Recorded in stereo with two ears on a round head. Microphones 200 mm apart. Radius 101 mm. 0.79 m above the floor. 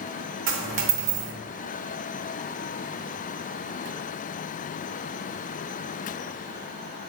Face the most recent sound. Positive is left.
turn(degrees=-55)  # may be behind; listen again after turning